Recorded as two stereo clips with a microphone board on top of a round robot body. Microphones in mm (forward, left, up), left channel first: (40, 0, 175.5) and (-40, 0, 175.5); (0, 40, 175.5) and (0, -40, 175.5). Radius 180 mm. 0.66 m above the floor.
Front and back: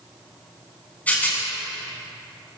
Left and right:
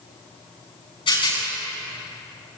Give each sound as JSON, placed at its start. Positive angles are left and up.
{"t": 1.1, "sound": "a rattle", "azimuth_deg": 70, "distance_m": 8.5}